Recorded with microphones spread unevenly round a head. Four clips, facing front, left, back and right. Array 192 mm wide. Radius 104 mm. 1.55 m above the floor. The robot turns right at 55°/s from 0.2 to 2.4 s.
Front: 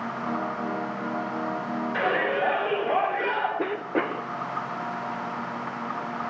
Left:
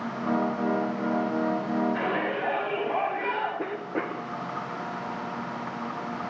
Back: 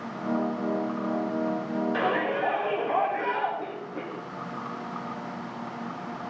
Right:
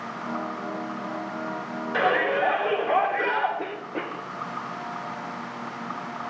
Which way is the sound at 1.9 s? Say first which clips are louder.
Right 5 dB, front 3 dB; 85° right.